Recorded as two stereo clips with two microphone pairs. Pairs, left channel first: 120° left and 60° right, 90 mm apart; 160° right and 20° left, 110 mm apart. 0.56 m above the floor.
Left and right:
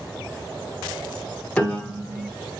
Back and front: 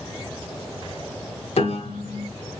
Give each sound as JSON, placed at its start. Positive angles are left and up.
{"t": 1.6, "sound": "a piano", "azimuth_deg": -165, "distance_m": 1.0}